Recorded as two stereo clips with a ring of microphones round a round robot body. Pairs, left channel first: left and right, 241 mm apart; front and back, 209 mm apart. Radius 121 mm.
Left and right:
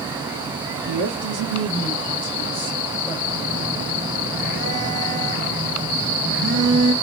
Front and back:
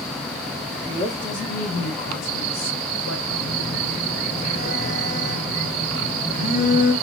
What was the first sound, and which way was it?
A woman speaking, 75° right.